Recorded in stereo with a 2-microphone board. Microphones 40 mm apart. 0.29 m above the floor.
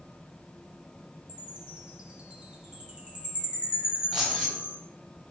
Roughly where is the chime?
Right.